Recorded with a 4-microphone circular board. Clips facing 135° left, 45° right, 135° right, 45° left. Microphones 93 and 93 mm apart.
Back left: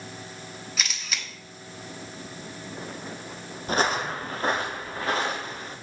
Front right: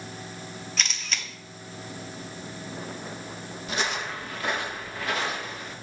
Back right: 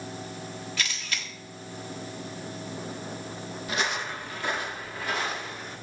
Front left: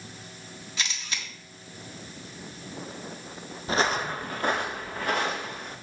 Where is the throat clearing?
No throat clearing in this recording.